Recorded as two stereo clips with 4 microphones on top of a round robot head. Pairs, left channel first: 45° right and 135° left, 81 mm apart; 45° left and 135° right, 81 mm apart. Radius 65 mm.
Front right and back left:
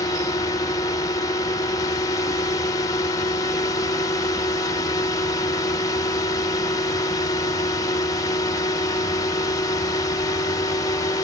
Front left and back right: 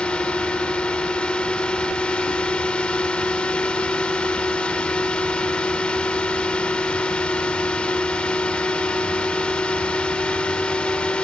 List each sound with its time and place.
0.0 s a drone: 30° right